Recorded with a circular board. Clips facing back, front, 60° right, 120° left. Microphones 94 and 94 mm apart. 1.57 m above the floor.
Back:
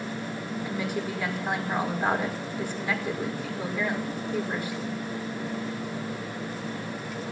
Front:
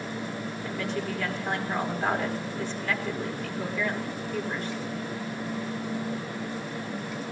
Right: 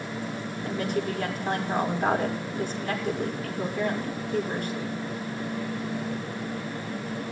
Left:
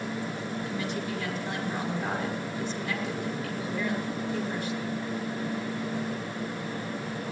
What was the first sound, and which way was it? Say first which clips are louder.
A woman speaking: even, right 8 dB; 100° right.